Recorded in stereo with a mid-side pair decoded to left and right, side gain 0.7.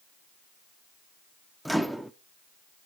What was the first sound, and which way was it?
A microwave, straight ahead.